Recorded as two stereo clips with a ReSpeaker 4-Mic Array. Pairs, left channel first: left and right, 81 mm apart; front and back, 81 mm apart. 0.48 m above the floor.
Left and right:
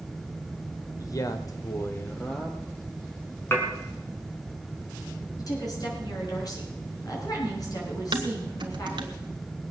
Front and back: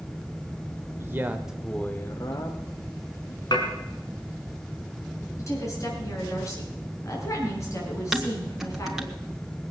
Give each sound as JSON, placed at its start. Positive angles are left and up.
{"t": 1.0, "sound": "a man speaking", "azimuth_deg": 125, "distance_m": 1.7}
{"t": 3.5, "sound": "dishes clattering", "azimuth_deg": 30, "distance_m": 3.5}
{"t": 5.4, "sound": "a woman speaking", "azimuth_deg": 50, "distance_m": 5.5}
{"t": 8.1, "sound": "dishes clattering", "azimuth_deg": -95, "distance_m": 1.6}